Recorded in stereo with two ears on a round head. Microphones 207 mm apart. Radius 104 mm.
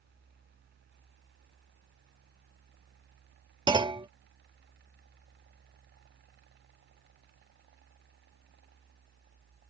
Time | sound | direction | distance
3.7 | a clunk | 20° right (ahead or behind) | ?